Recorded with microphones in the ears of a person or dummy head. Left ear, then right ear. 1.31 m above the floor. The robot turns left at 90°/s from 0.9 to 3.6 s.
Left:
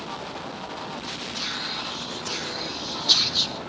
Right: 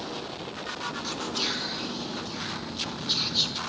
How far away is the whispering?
About 1.5 m.